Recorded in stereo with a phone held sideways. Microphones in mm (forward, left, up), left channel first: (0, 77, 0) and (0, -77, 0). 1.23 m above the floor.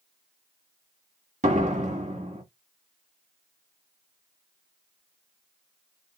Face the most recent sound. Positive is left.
turn(degrees=-50)  # may be behind; listen again after turning